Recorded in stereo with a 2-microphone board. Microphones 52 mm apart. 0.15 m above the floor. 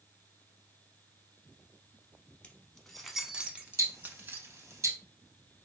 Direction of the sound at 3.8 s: 70° right (ahead or behind).